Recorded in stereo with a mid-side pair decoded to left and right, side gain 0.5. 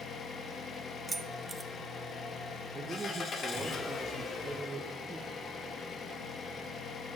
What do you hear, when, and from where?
0.0 s an engine running: 45° left, 1.3 m
1.1 s keys jangling: 25° right, 0.9 m
2.7 s a man speaking: 25° right, 0.9 m